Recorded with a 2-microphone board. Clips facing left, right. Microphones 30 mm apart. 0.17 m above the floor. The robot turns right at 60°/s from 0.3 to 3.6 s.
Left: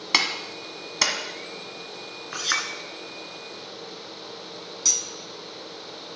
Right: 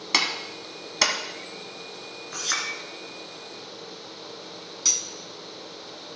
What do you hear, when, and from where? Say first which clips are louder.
0.1 s a clap: left 1 dB; 15° left (ahead or behind), 1.3 m; by 1.1 s 5° right (ahead or behind), 1.3 m
2.3 s a clink: left 3 dB; 35° left (ahead or behind), 1.3 m; by 2.7 s 15° left (ahead or behind), 1.3 m
4.8 s cutlery clinking: even; 10° right (ahead or behind), 0.8 m